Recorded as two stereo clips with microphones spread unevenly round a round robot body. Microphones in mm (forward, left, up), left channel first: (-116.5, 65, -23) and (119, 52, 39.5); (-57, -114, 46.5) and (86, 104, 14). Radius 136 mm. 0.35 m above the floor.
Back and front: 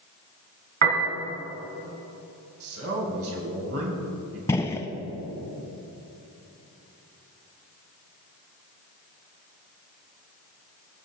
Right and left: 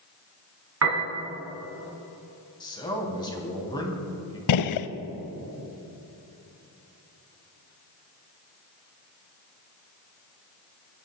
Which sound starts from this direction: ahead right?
A man speaking, at 2.6 s.